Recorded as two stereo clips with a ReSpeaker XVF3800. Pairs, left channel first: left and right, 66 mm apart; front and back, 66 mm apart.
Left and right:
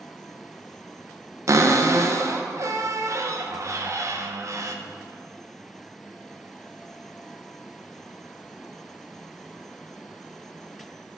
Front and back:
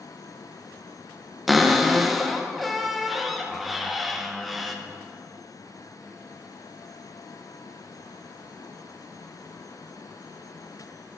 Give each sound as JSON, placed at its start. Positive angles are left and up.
{"t": 1.5, "sound": "a cupboard door", "azimuth_deg": -90, "distance_m": 0.7}